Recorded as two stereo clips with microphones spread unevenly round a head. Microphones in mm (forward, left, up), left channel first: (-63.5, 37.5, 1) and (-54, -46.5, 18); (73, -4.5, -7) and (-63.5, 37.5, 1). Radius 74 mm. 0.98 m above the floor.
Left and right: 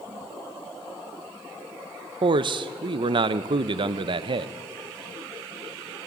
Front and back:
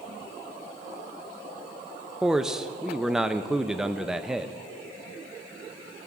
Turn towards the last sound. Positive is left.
turn(degrees=-110)